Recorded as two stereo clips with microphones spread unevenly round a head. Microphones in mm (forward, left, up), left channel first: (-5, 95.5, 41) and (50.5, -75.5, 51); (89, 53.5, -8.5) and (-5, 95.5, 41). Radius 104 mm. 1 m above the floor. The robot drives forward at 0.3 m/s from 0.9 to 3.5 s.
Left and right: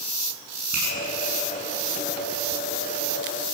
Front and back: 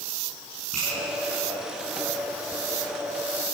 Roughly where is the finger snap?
Behind right.